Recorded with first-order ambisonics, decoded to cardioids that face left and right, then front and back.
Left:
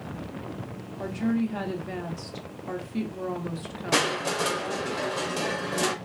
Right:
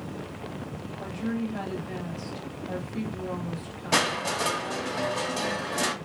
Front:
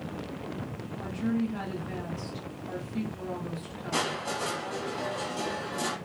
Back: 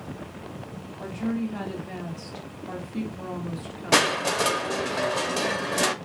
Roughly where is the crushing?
Behind.